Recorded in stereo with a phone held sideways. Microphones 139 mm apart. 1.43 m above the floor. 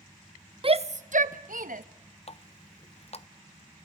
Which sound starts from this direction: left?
A running tap, at 2.3 s.